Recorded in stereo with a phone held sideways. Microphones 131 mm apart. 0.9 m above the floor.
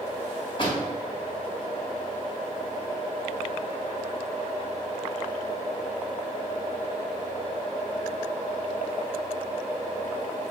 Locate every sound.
0.6 s a door slam: 40° left (ahead or behind), 3.5 m